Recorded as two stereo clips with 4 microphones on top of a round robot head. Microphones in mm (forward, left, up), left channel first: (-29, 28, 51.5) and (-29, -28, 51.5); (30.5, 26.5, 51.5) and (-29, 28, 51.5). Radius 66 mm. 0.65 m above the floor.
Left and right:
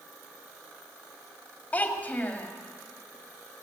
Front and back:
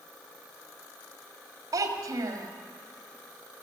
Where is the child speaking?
150° left, 2 m.